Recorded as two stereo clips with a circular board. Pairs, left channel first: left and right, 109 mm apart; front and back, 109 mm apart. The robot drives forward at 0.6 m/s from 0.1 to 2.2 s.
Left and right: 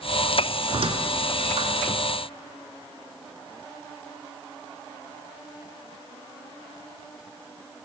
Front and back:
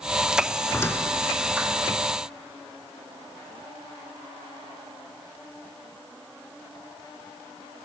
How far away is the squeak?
About 0.8 m.